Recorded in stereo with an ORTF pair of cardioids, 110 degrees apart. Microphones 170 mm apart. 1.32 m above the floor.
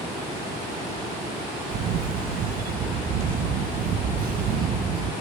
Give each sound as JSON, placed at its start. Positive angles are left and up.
{"t": 1.7, "sound": "a camera shutter", "azimuth_deg": -60, "distance_m": 1.1}